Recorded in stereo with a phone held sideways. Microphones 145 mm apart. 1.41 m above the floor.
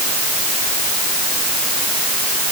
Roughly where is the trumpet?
I don't hear a trumpet.